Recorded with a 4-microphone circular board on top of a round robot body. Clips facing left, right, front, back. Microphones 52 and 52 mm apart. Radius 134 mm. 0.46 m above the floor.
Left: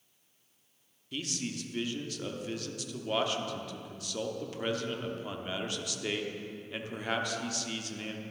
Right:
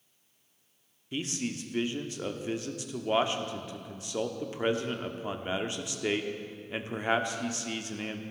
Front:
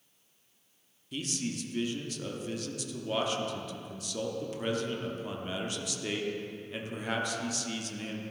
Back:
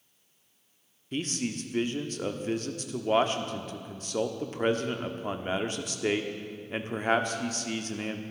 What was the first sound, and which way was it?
A man speaking, 145° right.